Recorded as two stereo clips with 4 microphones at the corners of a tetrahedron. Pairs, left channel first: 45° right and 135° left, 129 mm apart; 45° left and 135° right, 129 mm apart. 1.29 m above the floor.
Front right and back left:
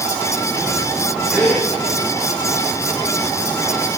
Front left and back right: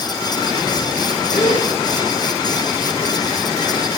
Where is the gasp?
40° left, 3 m.